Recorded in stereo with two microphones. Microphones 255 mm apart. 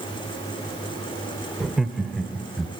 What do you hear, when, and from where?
1.6 s laughter: centre (ahead or behind), 0.9 m